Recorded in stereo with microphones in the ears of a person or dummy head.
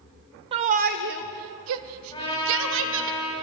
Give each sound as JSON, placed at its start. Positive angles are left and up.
{"t": 0.5, "sound": "a shout", "side_deg": -25, "distance_m": 0.5}
{"t": 2.1, "sound": "a trumpet", "side_deg": 25, "distance_m": 3.5}